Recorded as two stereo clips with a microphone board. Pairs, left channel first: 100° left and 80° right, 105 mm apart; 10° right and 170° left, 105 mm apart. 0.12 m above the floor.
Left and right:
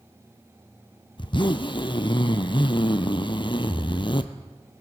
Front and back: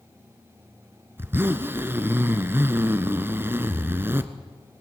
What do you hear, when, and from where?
1.2 s a zipper: 105° left, 0.8 m